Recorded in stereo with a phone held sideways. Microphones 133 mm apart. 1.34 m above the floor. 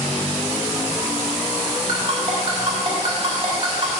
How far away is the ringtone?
About 1.8 m.